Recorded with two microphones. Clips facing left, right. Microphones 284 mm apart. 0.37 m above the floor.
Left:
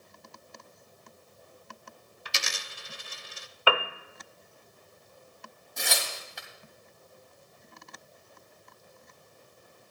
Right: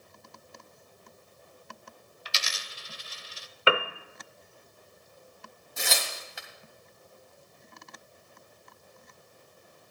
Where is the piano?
25° right (ahead or behind), 0.7 m.